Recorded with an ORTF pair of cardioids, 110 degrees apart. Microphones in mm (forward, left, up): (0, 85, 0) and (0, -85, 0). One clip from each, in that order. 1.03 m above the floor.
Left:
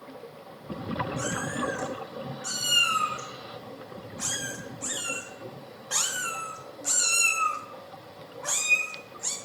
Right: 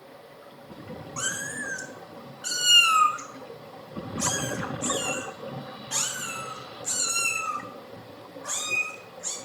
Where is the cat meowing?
50° right, 3 m; by 9.3 s 55° left, 3 m.